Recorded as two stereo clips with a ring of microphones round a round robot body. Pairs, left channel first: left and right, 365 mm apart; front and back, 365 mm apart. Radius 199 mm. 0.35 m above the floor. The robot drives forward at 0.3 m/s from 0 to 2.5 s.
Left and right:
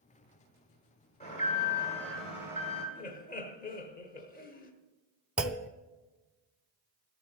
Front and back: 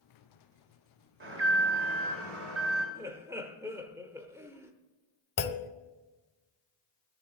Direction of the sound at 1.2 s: 150° left.